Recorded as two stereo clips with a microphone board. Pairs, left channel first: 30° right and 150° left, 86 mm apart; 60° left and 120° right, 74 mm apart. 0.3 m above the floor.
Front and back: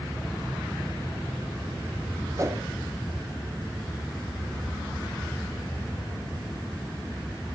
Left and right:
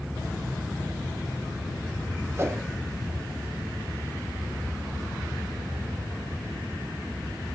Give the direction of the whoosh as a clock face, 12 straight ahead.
6 o'clock.